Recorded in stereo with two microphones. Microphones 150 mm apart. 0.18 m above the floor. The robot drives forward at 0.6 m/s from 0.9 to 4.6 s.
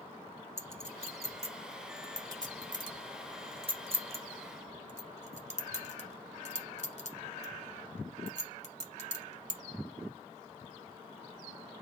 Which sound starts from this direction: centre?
A clink, at 0.6 s.